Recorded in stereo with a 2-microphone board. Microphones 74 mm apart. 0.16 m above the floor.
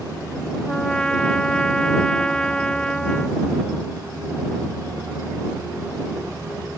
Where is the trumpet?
10° left (ahead or behind).